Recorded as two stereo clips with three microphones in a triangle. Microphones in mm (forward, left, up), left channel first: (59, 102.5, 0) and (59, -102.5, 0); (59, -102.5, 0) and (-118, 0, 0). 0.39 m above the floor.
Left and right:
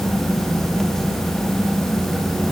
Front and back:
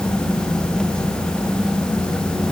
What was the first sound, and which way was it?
Only background noise.